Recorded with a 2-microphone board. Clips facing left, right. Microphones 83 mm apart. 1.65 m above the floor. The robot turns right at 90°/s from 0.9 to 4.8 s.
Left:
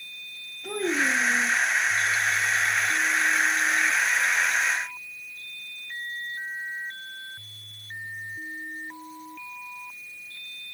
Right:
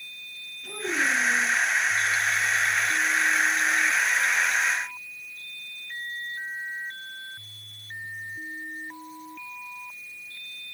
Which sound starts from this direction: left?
A child speaking, at 0.6 s.